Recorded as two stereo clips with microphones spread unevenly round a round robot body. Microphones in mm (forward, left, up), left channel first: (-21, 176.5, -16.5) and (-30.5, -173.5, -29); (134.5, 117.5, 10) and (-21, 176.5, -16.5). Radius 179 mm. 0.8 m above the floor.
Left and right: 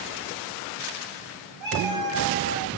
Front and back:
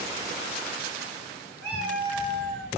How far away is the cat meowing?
About 1.8 m.